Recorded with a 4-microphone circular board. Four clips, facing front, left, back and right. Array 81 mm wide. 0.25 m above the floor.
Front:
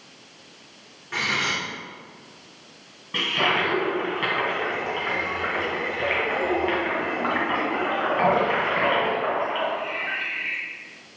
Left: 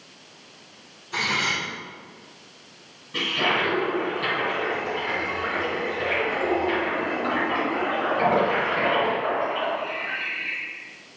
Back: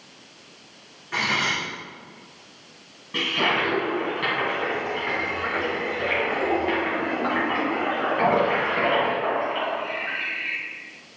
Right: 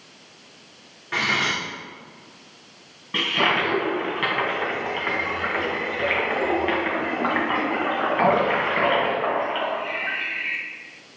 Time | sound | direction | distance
1.1 | cutlery clinking | 90° right | 2 m
3.1 | a toilet flushing | 75° right | 2 m